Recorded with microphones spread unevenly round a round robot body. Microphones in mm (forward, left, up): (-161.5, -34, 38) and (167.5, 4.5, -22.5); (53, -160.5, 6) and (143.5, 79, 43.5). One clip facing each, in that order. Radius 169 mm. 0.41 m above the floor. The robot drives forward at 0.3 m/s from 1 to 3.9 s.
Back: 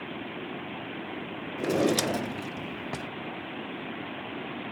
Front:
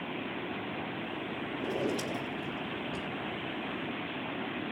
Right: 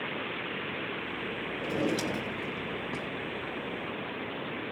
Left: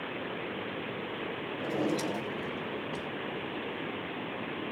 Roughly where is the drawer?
Behind.